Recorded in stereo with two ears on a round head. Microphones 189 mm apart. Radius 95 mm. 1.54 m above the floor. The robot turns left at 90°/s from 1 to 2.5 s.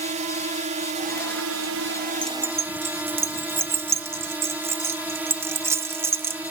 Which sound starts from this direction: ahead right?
A drone, at 0.0 s.